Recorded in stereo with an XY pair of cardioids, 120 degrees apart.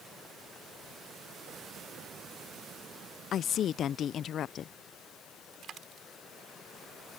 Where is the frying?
No frying in this recording.